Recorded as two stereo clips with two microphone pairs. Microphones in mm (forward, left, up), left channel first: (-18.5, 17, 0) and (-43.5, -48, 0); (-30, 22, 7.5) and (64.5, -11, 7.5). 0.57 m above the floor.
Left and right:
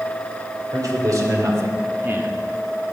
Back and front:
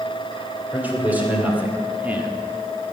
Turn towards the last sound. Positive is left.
turn(degrees=-75)